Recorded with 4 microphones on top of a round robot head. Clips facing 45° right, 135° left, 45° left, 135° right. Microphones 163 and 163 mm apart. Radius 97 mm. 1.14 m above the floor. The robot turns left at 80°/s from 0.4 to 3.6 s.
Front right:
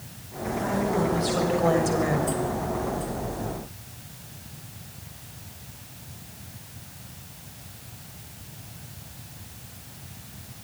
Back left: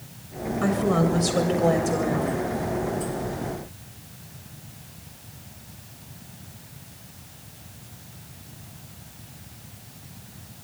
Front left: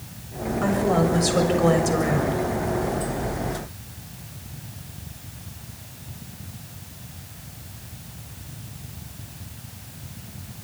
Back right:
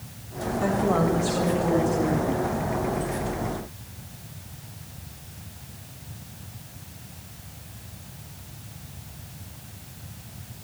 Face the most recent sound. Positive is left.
turn(degrees=-90)